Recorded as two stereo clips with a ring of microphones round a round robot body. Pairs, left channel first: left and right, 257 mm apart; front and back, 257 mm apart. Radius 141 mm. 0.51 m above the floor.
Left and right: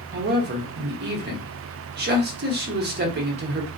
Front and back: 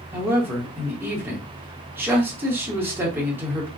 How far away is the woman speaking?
About 1.1 m.